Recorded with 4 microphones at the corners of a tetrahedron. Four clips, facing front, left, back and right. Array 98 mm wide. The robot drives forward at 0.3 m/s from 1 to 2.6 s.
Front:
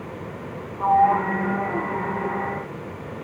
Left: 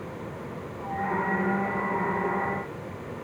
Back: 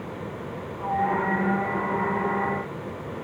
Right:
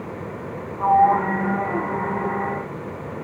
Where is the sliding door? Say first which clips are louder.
Right 13 dB, front 7 dB; 60° right.